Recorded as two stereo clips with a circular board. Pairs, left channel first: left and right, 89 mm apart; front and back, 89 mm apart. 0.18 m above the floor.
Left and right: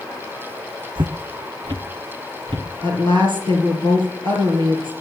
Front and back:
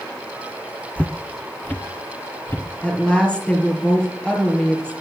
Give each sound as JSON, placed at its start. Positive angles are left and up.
{"t": 1.0, "sound": "footsteps", "azimuth_deg": -75, "distance_m": 0.5}
{"t": 2.8, "sound": "a woman speaking", "azimuth_deg": -80, "distance_m": 4.0}